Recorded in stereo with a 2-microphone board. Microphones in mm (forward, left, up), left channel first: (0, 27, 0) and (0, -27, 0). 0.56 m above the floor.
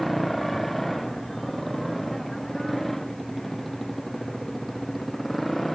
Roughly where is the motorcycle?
Centre.